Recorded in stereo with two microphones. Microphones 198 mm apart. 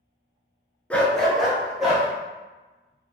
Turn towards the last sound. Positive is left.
turn(degrees=-5)  # may be behind; listen again after turning